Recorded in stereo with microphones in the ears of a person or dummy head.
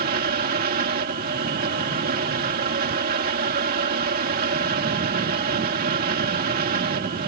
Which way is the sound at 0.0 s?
50° right (ahead or behind).